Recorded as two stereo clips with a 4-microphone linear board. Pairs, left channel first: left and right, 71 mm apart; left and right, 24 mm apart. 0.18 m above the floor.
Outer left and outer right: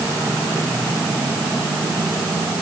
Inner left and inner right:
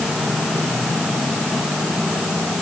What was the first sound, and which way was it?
Only background noise.